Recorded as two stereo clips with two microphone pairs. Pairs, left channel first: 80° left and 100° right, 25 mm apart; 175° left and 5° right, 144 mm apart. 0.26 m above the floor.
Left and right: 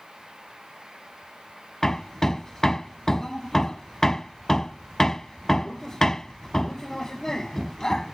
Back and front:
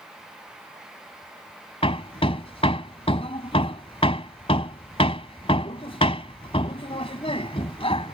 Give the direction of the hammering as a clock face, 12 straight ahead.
7 o'clock.